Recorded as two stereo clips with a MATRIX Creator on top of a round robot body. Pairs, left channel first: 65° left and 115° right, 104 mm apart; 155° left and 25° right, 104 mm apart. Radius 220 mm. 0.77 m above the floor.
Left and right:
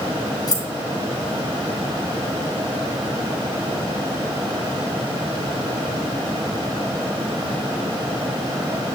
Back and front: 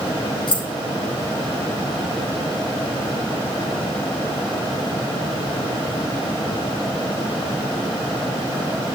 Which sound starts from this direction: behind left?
Keys jangling, at 0.5 s.